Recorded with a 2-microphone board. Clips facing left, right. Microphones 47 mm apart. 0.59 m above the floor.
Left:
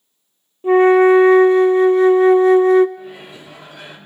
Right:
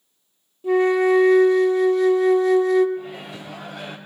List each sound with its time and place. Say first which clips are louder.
0.6 s a flute: left 7 dB; 30° left (ahead or behind), 0.6 m
3.0 s a microwave: right 1 dB; 75° right (ahead or behind), 2.5 m